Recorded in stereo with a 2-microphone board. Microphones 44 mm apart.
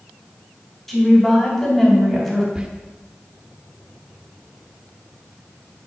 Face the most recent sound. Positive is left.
turn(degrees=-20)  # may be behind; listen again after turning